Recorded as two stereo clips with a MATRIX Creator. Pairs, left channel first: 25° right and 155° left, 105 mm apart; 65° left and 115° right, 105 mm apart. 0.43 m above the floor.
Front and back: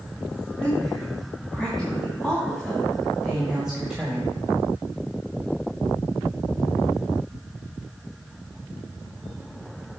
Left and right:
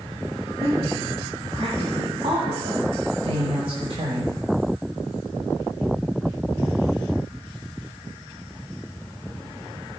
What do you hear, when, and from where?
0.6 s a woman speaking: 105° right, 3.5 m; by 4.3 s 125° right, 1.7 m